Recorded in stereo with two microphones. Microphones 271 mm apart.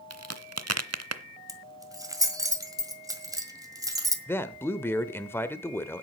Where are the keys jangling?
15° right (ahead or behind), 1.6 m.